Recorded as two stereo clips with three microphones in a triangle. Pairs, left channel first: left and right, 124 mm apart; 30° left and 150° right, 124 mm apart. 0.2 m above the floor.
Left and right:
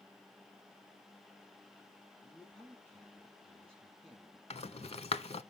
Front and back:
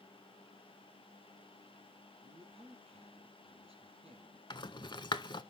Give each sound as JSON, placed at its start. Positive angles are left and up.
{"t": 2.2, "sound": "a man speaking", "azimuth_deg": 170, "distance_m": 5.0}
{"t": 4.5, "sound": "a rattle", "azimuth_deg": 70, "distance_m": 0.5}